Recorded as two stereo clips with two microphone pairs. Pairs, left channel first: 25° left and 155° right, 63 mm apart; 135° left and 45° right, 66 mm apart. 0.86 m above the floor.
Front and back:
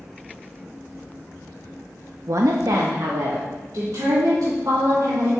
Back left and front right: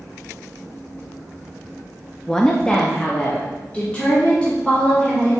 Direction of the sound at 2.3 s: 150° right.